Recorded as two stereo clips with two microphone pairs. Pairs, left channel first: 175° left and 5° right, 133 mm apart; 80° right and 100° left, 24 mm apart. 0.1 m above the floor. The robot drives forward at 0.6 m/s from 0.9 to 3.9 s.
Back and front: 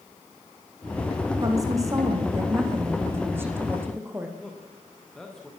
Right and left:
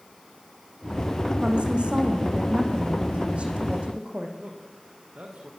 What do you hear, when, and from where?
1.4 s a woman speaking: 60° left, 7 m; by 4.3 s 70° left, 6.5 m
4.4 s a man speaking: 90° left, 7.5 m